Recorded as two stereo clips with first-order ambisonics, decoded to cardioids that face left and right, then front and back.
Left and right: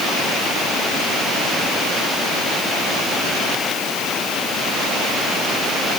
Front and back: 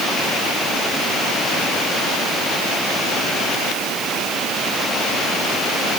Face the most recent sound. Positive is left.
No sound to turn to.